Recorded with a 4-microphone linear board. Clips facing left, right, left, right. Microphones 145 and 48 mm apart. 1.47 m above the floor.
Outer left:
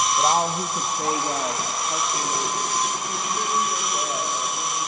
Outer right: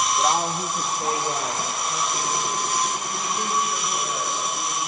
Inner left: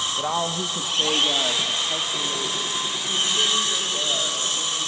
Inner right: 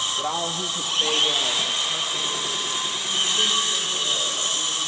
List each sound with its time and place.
0.2 s a woman speaking: 20° left (ahead or behind), 1.2 m; by 4.9 s 90° left, 7 m